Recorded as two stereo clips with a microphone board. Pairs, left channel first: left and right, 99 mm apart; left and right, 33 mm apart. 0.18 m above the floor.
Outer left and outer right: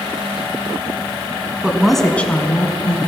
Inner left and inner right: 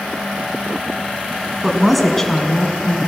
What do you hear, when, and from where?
1.6 s a woman speaking: 10° right (ahead or behind), 1.7 m; by 3.0 s 45° left (ahead or behind), 2 m